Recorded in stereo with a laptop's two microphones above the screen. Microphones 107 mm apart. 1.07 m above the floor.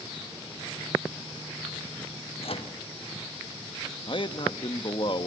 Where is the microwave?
60° left (ahead or behind), 1.0 m.